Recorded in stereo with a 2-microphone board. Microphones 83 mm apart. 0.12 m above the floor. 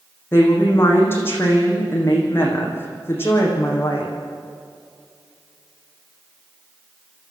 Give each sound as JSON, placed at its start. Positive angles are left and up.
{"t": 0.3, "sound": "a woman speaking", "side_deg": 30, "distance_m": 6.0}